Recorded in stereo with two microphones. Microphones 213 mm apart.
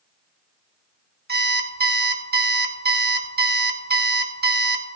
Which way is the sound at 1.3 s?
50° right (ahead or behind).